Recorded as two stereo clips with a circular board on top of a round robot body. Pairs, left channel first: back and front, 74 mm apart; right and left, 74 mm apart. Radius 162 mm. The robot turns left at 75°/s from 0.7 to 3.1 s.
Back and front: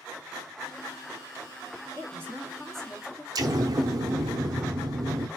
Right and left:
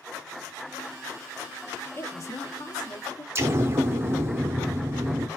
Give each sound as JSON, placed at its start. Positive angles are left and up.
{"t": 2.0, "sound": "a woman speaking", "azimuth_deg": -35, "distance_m": 2.0}
{"t": 3.4, "sound": "an explosion", "azimuth_deg": 35, "distance_m": 0.6}